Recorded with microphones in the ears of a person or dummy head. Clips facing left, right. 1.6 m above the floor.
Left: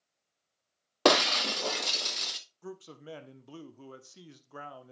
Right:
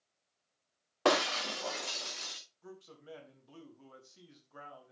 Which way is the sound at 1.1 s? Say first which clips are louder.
Left 4 dB; 50° left (ahead or behind).